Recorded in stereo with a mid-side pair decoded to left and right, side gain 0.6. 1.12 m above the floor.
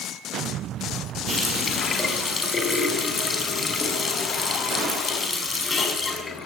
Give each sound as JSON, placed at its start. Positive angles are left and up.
{"t": 1.3, "sound": "a running tap", "azimuth_deg": 25, "distance_m": 5.5}